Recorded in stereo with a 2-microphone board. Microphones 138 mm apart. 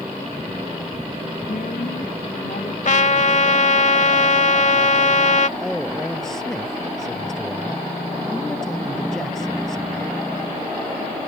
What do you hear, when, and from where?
1.5 s a woman speaking: 75° left (ahead or behind); by 2.8 s 70° left (ahead or behind)
2.9 s a trumpet: 60° left (ahead or behind)
5.6 s a man speaking: 5° left (ahead or behind)